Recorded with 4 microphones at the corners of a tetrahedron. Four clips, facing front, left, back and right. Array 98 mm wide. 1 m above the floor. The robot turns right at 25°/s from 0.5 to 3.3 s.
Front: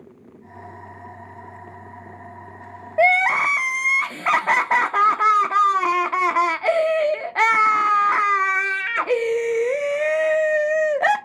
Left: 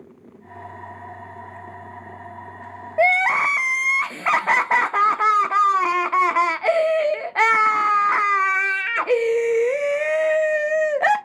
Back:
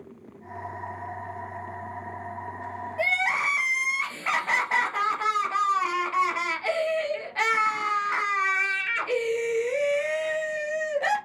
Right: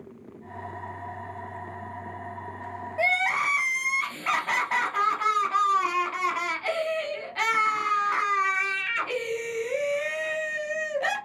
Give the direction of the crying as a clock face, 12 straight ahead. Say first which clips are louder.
Left 7 dB, front 9 dB; 11 o'clock.